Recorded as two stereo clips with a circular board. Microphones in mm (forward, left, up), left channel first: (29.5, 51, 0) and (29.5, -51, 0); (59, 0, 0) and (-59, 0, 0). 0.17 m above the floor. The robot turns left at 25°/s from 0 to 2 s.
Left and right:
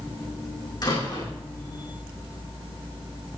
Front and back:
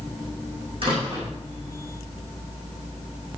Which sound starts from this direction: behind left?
A door slam, at 0.8 s.